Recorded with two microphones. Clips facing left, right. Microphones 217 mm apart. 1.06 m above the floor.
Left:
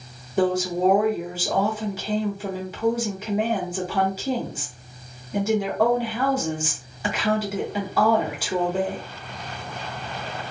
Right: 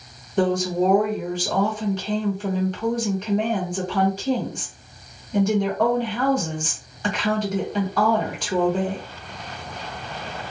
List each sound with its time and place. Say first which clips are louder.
0.4 s a woman speaking: right 1 dB; 5° left (ahead or behind), 1.1 m